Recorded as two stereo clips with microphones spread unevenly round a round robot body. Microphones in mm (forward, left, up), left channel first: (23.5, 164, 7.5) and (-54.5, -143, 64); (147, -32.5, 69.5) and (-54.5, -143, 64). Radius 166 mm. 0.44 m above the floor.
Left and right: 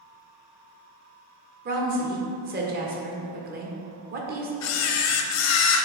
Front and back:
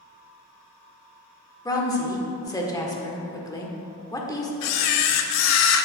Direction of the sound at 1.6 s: 40° right.